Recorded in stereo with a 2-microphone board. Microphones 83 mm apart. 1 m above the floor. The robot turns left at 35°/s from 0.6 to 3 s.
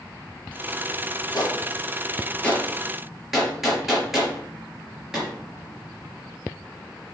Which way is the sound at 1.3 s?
50° left (ahead or behind).